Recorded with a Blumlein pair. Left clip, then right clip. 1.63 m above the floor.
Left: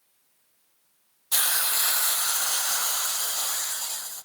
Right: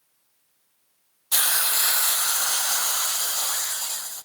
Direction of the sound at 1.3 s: 10° right.